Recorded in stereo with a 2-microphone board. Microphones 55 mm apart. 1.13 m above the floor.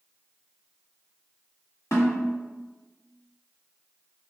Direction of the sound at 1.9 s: 70° left (ahead or behind).